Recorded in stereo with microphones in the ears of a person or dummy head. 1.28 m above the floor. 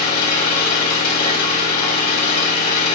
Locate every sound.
0.0 s an engine running: 55° left (ahead or behind), 3.5 m